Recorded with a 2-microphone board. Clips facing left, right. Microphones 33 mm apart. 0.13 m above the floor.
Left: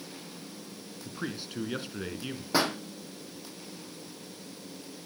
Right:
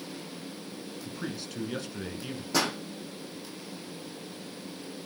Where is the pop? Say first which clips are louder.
Left 1 dB; 25° left (ahead or behind), 3.5 m.